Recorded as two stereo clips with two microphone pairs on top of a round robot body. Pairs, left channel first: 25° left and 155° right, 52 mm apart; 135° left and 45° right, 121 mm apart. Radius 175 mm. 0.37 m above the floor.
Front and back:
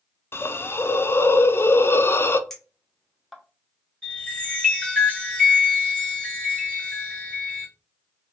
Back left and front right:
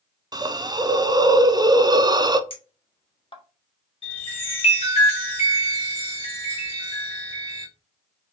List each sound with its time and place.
0.3 s a hiss: 5° right, 0.5 m
2.5 s a clink: 120° left, 1.1 m
4.0 s a chime: 100° left, 1.7 m